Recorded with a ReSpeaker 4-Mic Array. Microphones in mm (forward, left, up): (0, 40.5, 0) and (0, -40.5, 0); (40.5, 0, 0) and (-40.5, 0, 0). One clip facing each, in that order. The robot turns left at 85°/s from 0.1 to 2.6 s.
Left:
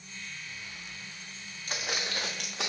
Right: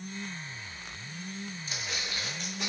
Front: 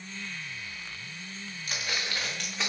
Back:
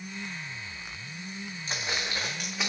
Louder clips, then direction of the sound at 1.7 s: Left 7 dB, back 1 dB; 120° left.